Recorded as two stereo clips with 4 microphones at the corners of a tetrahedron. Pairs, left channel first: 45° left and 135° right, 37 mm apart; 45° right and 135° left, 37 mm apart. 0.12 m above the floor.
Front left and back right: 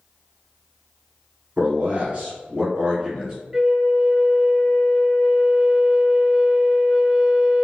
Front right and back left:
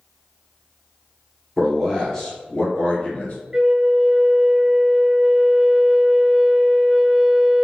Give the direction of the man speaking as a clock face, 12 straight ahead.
4 o'clock.